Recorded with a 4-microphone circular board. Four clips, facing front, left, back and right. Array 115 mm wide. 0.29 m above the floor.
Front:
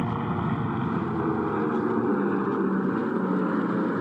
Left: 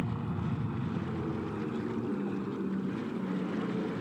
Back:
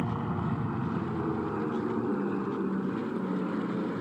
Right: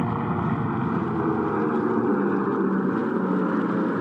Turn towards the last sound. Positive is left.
turn(degrees=-65)